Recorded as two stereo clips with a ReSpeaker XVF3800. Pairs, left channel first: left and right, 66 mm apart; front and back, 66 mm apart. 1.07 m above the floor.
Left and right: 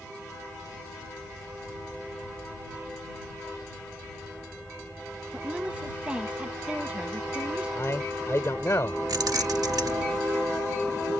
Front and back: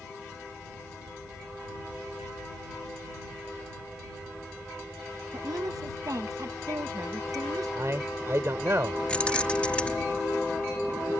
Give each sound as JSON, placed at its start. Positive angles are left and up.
{"t": 5.3, "sound": "a woman speaking", "azimuth_deg": -160}
{"t": 7.8, "sound": "a man speaking", "azimuth_deg": 135}
{"t": 9.1, "sound": "keys jangling", "azimuth_deg": -70}